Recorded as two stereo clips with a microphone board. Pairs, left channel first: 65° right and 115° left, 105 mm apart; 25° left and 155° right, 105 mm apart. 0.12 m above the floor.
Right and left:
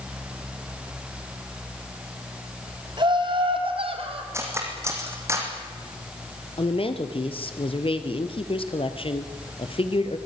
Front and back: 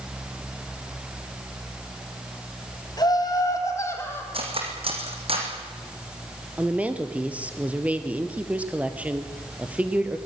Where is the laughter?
70° left, 5 m; by 4.2 s 90° left, 5 m.